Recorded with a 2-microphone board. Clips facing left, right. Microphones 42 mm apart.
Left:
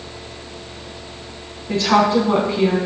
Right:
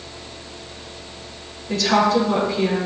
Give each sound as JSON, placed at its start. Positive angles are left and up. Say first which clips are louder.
{"t": 1.7, "sound": "a woman speaking", "louder": "left 2 dB", "side_deg": 30, "distance_m": 3.5}